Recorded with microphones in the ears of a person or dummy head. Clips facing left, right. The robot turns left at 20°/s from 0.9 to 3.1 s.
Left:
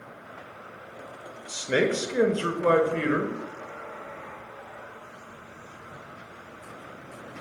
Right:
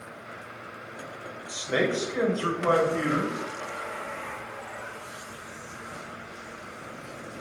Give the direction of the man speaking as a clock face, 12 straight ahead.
7 o'clock.